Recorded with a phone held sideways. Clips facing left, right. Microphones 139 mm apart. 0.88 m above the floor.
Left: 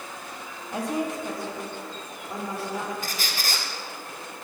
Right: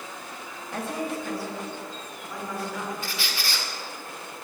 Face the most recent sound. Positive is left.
turn(degrees=45)  # may be behind; listen again after turning